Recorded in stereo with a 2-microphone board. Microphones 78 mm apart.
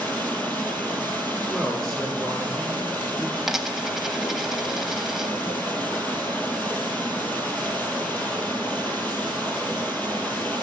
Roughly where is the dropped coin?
Centre.